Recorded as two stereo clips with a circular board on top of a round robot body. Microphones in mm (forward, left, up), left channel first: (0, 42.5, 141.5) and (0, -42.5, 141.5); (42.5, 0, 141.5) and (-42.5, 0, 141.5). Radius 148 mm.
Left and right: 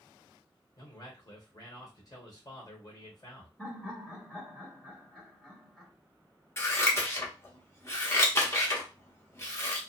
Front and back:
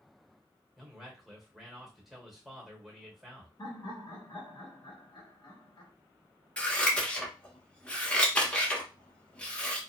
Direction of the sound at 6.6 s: 65° left.